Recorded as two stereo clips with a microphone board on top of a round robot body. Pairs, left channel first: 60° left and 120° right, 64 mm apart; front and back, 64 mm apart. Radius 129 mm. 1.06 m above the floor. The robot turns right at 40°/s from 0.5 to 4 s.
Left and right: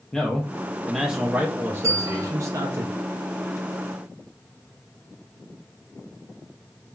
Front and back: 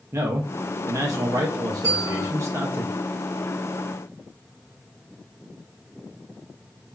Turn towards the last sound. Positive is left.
turn(degrees=-70)